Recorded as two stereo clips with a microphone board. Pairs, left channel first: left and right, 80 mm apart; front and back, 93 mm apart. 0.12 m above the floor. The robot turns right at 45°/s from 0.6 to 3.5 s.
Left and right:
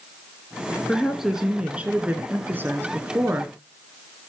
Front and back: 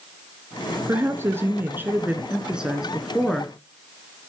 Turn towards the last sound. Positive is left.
turn(degrees=-70)